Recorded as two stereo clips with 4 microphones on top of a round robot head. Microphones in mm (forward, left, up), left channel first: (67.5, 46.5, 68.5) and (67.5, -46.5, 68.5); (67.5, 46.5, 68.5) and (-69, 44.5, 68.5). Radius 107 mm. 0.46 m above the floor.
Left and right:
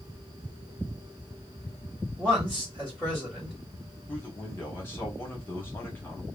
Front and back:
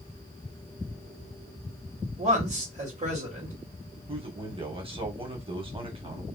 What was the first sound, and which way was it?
A man speaking, 170° left.